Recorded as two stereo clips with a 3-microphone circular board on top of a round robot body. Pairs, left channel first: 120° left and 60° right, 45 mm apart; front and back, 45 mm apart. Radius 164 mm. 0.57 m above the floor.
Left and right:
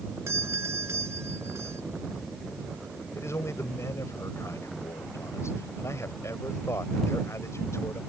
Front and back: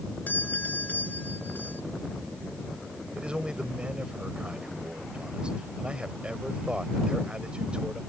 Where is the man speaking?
110° left.